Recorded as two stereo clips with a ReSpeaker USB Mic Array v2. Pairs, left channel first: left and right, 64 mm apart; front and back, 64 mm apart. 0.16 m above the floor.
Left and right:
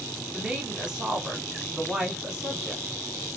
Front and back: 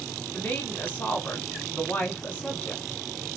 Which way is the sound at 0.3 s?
30° right.